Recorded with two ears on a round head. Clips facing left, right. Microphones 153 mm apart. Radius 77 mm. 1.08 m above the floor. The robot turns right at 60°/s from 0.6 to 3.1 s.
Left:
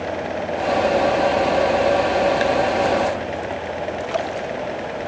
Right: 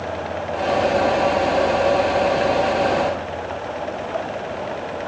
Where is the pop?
I don't hear a pop.